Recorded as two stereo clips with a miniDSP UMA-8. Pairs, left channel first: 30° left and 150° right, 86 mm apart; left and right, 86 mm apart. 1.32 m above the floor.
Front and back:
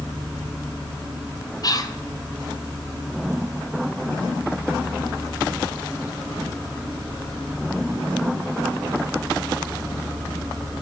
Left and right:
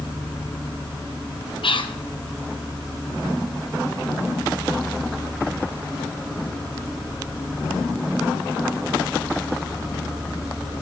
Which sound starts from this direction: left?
Whispering, at 1.6 s.